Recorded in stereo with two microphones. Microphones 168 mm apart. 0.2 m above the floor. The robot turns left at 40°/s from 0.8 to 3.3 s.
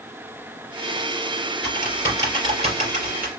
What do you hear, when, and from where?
1.6 s typing on a keyboard: centre (ahead or behind), 2.5 m; by 3.3 s 60° right (ahead or behind), 2.5 m